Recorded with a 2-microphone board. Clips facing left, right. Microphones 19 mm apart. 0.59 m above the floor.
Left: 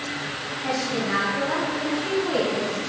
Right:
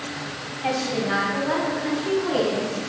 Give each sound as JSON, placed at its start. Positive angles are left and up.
{"t": 0.6, "sound": "a woman speaking", "side_deg": -70, "distance_m": 3.0}